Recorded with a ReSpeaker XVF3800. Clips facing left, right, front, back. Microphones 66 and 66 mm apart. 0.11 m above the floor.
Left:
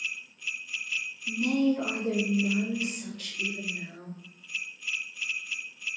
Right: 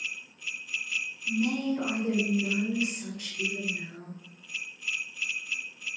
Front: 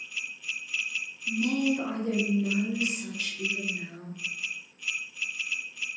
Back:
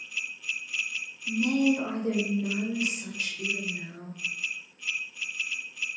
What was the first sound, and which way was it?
A woman speaking, 125° right.